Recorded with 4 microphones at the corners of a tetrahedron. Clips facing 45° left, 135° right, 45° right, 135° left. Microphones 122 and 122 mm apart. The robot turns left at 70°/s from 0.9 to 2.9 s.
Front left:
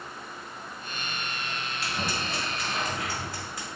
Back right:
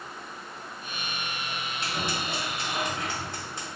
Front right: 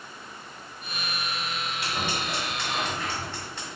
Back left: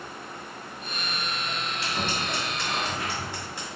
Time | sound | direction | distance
1.8 | scissors | 90° right | 1.7 m